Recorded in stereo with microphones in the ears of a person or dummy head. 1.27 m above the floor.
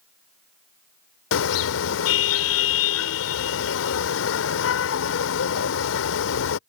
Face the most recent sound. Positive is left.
turn(degrees=75)  # may be behind; listen again after turning